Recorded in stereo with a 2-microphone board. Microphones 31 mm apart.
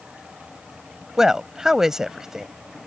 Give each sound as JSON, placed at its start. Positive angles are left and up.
{"t": 1.2, "sound": "a woman speaking", "side_deg": -15}